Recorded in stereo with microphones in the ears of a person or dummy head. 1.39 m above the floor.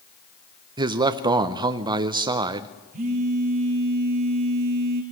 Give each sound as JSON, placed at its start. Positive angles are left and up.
{"t": 0.8, "sound": "a man speaking", "side_deg": -20, "distance_m": 0.6}
{"t": 2.9, "sound": "a phone buzzing", "side_deg": -45, "distance_m": 1.8}